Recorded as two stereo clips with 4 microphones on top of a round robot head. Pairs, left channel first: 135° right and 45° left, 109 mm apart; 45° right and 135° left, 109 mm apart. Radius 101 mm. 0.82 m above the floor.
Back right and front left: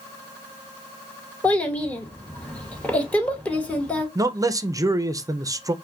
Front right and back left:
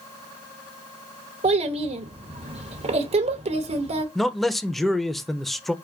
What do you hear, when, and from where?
1.4 s a child speaking: 145° left, 0.8 m
4.2 s a man speaking: 40° left, 0.6 m